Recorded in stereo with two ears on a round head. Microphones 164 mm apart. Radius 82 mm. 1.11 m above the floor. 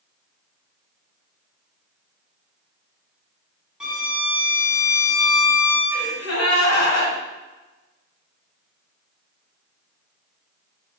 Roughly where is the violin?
Centre.